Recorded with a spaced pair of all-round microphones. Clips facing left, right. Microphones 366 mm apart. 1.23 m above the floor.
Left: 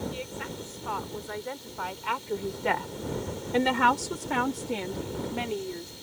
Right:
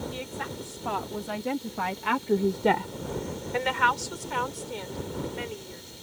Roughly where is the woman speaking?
Right.